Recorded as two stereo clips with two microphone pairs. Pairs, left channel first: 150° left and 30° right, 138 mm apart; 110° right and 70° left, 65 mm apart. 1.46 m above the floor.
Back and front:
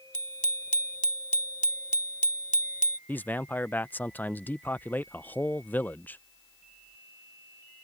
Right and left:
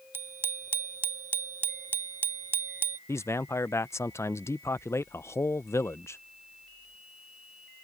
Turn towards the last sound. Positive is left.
turn(degrees=-130)